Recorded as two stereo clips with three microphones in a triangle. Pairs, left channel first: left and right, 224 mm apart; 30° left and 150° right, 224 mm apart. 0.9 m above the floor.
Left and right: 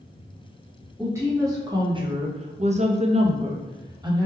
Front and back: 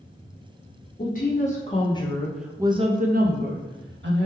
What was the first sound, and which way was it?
A woman speaking, 15° right.